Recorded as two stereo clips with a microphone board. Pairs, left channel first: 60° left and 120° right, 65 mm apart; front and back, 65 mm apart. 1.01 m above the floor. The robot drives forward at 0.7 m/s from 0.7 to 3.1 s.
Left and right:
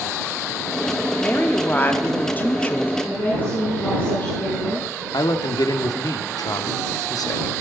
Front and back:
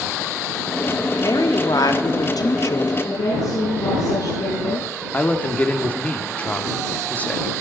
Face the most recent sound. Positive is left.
turn(degrees=65)